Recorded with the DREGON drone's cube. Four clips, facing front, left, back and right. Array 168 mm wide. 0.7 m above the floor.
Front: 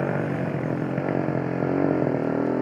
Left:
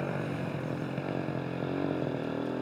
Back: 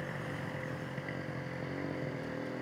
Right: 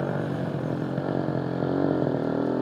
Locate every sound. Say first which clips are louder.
0.0 s a motorcycle: right 6 dB, front 15 dB; 25° right; by 2.6 s 30° right